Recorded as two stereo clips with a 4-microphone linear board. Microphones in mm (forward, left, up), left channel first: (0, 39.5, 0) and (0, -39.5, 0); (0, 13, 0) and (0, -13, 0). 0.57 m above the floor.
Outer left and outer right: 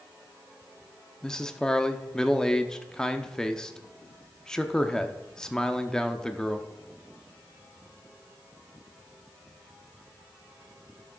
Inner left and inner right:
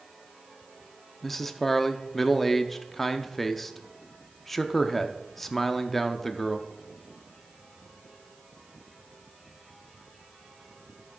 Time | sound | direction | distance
1.2 | a man speaking | 5° left (ahead or behind) | 0.7 m